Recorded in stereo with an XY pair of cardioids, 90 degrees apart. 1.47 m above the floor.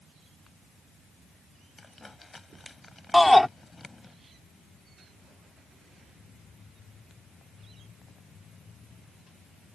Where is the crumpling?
20° left.